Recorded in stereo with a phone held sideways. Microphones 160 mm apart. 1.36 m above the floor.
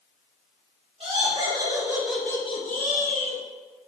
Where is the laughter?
35° right (ahead or behind), 1.5 m; by 3.4 s 85° left, 1.0 m.